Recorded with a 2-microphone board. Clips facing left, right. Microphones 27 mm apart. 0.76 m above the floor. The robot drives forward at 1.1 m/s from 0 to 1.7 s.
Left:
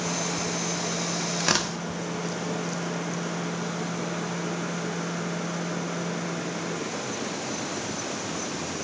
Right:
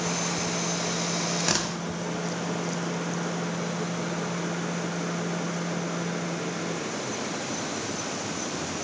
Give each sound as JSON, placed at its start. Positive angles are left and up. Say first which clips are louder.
{"t": 1.4, "sound": "tearing paper", "louder": "left 5 dB", "side_deg": 15, "distance_m": 1.0}